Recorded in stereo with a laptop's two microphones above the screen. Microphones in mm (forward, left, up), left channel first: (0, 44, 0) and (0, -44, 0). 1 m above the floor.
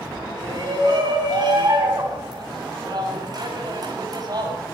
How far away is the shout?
About 9.5 m.